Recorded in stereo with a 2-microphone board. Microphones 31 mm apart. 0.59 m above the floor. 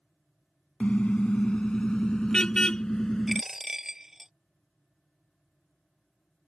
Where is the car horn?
35° left (ahead or behind); by 3.4 s 15° left (ahead or behind).